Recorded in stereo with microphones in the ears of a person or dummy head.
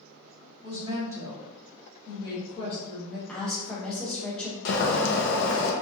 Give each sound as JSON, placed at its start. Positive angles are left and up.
{"t": 0.6, "sound": "a woman speaking", "side_deg": -35, "distance_m": 1.3}
{"t": 3.3, "sound": "a woman speaking", "side_deg": 0, "distance_m": 0.9}
{"t": 4.7, "sound": "boiling", "side_deg": 60, "distance_m": 0.6}